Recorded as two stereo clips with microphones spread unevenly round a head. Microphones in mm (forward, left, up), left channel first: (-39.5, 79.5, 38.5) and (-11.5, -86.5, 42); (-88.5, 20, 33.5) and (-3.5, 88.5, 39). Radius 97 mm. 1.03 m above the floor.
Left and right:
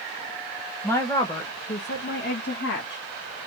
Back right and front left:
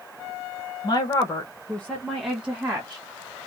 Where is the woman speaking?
175° left, 1.2 m; by 3.0 s 110° left, 1.7 m.